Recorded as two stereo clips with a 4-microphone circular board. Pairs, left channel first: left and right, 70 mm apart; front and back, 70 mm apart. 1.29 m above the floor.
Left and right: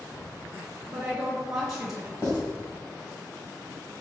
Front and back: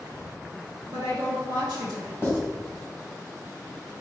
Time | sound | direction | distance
0.9 | a woman speaking | 170° right | 1.0 m
2.2 | writing | 55° left | 1.7 m